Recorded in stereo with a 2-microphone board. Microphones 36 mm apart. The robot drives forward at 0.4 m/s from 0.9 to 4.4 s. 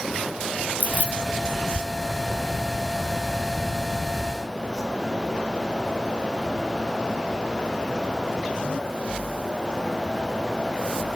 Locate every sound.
0.8 s keys jangling: 55° left (ahead or behind), 2.0 m